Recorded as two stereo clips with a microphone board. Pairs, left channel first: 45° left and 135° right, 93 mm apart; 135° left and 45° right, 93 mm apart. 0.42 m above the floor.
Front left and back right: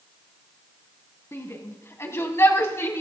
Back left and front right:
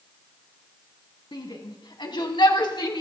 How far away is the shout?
About 3 m.